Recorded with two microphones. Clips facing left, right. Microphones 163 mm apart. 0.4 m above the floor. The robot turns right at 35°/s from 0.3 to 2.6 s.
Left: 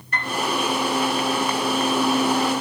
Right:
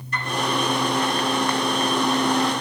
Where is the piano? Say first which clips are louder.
Even; 60° left (ahead or behind), 3.5 m; by 0.4 s 65° left (ahead or behind), 3.5 m.